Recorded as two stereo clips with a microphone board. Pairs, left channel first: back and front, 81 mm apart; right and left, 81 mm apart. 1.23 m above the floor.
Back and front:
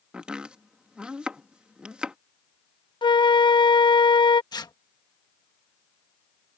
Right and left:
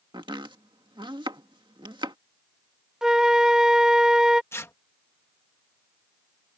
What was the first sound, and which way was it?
Chopping, 75° left.